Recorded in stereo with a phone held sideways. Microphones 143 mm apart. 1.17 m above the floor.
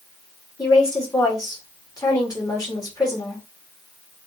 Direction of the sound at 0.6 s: 25° left (ahead or behind).